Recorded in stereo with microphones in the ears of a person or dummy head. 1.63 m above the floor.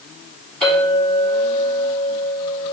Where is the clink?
Centre (ahead or behind), 2 m.